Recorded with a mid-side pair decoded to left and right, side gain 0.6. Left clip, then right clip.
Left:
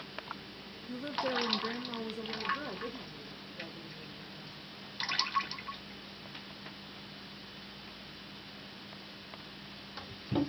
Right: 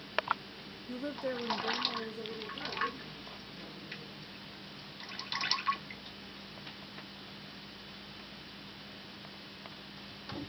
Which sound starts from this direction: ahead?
A woman speaking, at 0.9 s.